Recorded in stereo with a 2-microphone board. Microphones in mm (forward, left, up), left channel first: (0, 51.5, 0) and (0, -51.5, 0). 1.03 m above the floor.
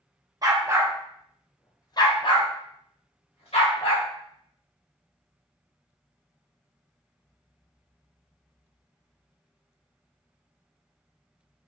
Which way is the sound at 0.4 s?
40° right (ahead or behind).